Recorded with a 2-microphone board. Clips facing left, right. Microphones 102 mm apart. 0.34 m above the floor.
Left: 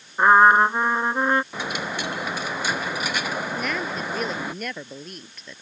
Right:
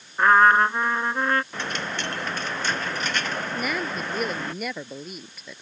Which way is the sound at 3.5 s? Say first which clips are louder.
Even; 5° right (ahead or behind).